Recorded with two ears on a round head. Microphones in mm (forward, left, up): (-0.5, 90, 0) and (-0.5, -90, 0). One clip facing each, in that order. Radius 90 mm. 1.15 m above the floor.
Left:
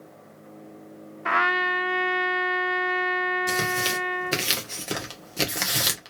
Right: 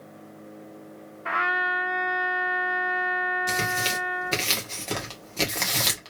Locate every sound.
1.2 s a trumpet: 60° left (ahead or behind), 0.6 m
3.5 s tearing paper: 10° left (ahead or behind), 1.4 m